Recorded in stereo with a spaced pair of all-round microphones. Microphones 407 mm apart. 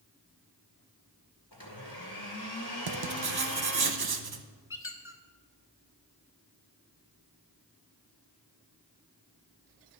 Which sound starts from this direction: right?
Writing, at 2.9 s.